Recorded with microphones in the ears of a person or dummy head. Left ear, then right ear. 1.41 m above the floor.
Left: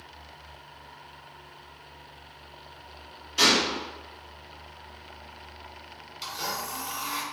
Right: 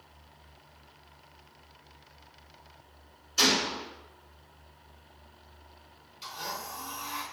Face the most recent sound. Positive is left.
turn(degrees=15)  # may be behind; listen again after turning